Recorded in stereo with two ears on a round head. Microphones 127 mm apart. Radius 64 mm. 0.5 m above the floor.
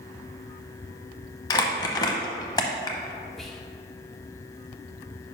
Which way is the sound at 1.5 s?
25° left (ahead or behind).